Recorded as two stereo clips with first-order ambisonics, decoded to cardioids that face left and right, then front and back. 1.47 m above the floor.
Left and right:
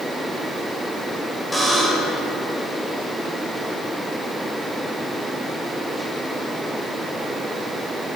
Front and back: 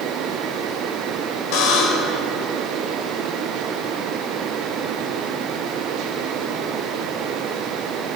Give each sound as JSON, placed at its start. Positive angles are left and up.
{"t": 1.5, "sound": "a buzzer", "azimuth_deg": 5, "distance_m": 5.5}